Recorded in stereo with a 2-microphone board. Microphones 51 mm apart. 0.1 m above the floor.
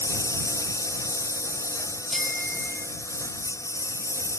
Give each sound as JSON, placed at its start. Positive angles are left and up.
{"t": 0.0, "sound": "a lawn mower", "side_deg": 80}
{"t": 2.1, "sound": "a bicycle bell", "side_deg": 5}